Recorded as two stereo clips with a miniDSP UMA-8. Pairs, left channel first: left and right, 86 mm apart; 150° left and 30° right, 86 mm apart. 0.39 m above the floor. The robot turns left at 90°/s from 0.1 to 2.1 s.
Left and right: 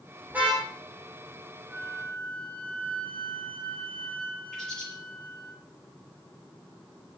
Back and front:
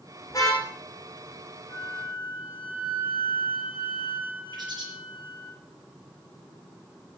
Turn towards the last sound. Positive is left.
turn(degrees=5)